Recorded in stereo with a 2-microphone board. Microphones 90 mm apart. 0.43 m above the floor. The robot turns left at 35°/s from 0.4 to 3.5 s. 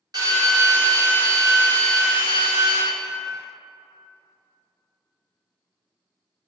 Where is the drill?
65° right, 1.8 m; by 2.8 s 150° right, 1.8 m.